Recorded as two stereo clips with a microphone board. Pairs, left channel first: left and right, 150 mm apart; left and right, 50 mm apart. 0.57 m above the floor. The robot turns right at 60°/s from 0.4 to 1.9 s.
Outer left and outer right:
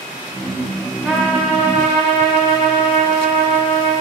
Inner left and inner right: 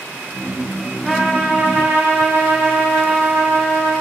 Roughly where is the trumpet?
Behind.